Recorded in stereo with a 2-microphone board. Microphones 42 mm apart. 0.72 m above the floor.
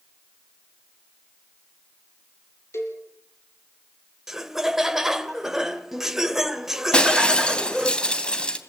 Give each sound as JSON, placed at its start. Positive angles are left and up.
{"t": 2.7, "sound": "a cowbell", "side_deg": 65, "distance_m": 5.0}
{"t": 4.3, "sound": "laughter", "side_deg": -5, "distance_m": 2.5}
{"t": 6.9, "sound": "breaking glass", "side_deg": 20, "distance_m": 2.5}